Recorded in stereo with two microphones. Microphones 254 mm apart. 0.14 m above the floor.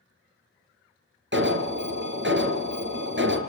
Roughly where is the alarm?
Right.